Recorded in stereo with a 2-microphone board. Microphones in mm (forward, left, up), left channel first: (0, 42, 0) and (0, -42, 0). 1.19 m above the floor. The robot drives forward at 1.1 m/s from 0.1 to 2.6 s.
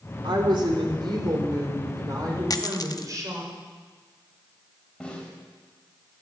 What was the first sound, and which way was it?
A woman speaking, 70° right (ahead or behind).